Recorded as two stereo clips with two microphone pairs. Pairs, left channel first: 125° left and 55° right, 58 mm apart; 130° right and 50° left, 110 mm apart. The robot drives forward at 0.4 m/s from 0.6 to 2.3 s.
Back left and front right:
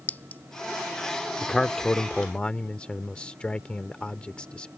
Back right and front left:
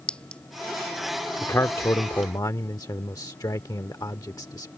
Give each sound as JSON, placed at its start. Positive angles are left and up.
{"t": 0.1, "sound": "a clink", "azimuth_deg": 155}
{"t": 1.4, "sound": "a man speaking", "azimuth_deg": -155}